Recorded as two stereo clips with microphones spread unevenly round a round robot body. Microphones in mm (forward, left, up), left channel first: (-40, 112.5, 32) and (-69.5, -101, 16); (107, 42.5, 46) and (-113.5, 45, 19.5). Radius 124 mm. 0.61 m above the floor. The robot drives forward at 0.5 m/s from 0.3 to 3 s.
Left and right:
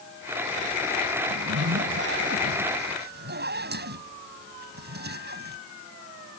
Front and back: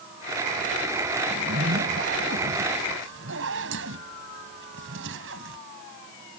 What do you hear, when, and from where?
1.3 s a zipper: 130° right; by 5.6 s 140° right